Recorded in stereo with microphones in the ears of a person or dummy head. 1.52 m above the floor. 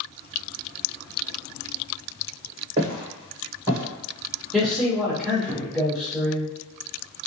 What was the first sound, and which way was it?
Footsteps, 30° right (ahead or behind).